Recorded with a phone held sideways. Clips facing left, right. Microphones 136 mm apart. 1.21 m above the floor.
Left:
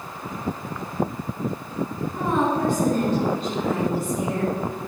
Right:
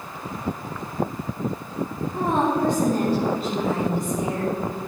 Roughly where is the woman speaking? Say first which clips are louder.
Right 1 dB; right.